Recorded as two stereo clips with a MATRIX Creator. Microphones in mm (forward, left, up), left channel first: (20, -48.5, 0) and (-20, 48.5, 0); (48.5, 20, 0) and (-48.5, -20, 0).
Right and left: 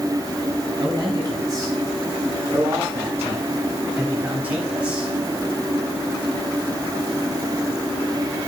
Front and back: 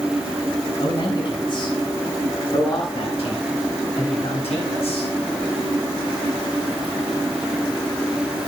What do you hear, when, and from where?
0.8 s a man speaking: 60° left, 6.5 m; by 5.1 s 30° left, 5 m